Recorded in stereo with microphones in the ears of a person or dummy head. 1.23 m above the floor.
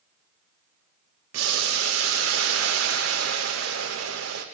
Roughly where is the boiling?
Right.